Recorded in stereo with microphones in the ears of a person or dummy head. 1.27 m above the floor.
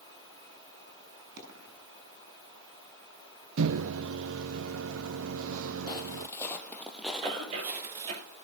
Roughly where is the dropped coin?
Right.